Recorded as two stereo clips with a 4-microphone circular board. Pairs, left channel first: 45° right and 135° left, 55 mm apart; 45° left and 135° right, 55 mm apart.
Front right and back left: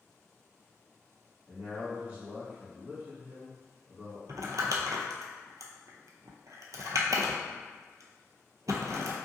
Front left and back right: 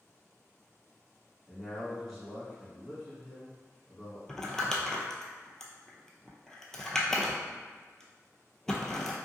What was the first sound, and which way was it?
A man speaking, 130° left.